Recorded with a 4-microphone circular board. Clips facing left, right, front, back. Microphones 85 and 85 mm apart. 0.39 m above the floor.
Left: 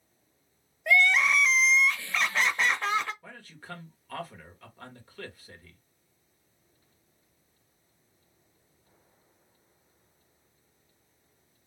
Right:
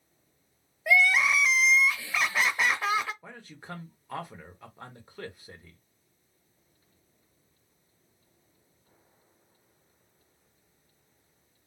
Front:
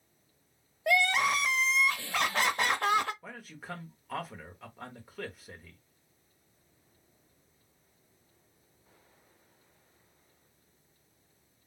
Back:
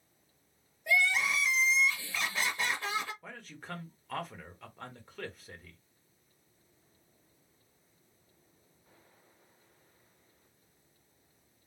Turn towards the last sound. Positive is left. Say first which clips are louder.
# right 1 dB, front 2 dB
turn(degrees=-75)